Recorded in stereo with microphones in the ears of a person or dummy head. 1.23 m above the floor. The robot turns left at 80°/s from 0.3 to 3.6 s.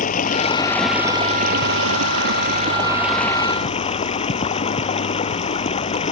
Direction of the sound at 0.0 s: 45° left.